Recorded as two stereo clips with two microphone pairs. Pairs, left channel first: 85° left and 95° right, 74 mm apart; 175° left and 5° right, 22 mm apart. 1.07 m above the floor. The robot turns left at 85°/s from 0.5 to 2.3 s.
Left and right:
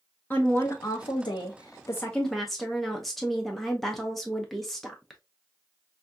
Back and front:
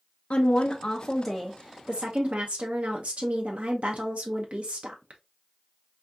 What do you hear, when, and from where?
0.3 s a woman speaking: 150° left, 0.6 m; by 5.2 s 5° right, 0.6 m